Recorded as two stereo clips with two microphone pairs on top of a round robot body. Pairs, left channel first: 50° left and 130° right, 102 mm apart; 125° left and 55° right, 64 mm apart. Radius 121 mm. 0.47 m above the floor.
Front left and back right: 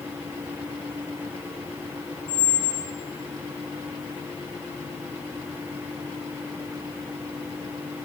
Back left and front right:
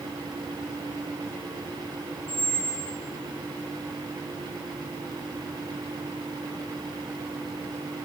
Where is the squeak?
45° left, 0.7 m.